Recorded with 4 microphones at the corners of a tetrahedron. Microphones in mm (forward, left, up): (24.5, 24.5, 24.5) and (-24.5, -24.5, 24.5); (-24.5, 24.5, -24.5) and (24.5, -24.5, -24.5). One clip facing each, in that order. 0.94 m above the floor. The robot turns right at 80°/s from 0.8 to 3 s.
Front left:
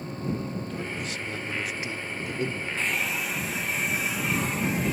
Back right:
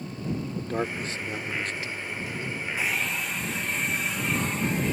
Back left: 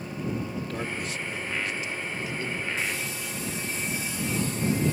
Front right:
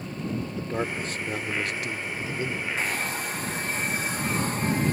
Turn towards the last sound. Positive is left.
turn(degrees=-40)